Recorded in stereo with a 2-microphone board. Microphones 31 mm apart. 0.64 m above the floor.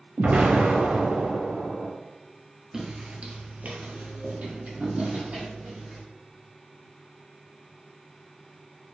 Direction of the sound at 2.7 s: 20° right (ahead or behind).